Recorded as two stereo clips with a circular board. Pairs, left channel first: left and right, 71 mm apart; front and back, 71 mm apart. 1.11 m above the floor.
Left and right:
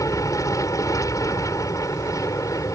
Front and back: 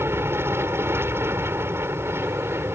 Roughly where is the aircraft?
Behind left.